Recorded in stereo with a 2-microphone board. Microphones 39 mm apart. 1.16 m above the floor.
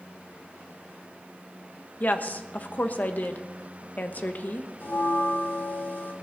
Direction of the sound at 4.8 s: 55° left (ahead or behind).